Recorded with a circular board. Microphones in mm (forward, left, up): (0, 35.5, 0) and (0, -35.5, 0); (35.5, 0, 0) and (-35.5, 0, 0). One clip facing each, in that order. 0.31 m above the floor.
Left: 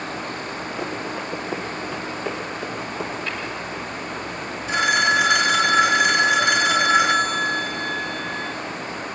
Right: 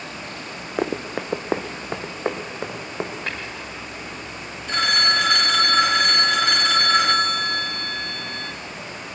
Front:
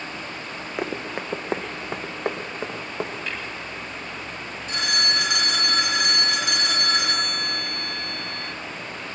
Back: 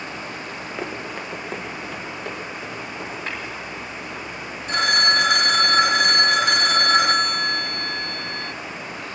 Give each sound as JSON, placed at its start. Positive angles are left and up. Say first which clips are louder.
{"t": 0.8, "sound": "running footsteps", "louder": "right 6 dB, front 3 dB", "azimuth_deg": -75, "distance_m": 1.1}
{"t": 3.3, "sound": "tapping", "louder": "left 1 dB, back 2 dB", "azimuth_deg": -125, "distance_m": 4.0}
{"t": 4.7, "sound": "a phone ringing", "louder": "left 3 dB, back 7 dB", "azimuth_deg": 165, "distance_m": 0.7}